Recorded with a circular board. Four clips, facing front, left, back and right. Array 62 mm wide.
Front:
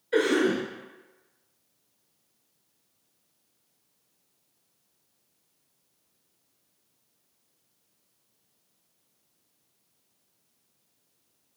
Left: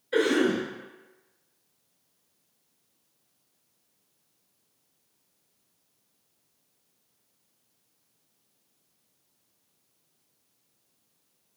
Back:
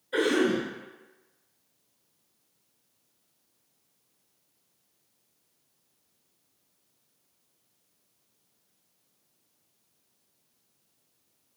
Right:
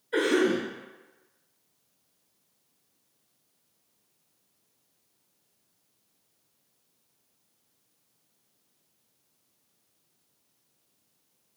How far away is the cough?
About 1.8 m.